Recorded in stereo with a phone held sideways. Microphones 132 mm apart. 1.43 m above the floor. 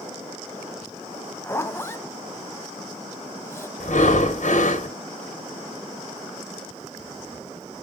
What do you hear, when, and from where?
1.4 s a zipper: 20° left (ahead or behind), 0.8 m
3.8 s breathing: 65° left (ahead or behind), 1.4 m